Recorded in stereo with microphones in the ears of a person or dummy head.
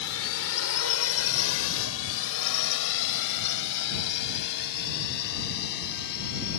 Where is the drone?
65° left (ahead or behind); by 6.6 s 55° left (ahead or behind).